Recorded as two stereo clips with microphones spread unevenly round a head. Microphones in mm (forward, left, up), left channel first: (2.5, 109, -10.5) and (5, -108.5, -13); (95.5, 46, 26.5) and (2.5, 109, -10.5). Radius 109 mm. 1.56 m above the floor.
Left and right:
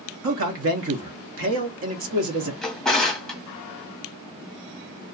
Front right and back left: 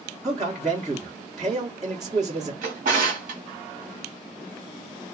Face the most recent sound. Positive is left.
turn(degrees=175)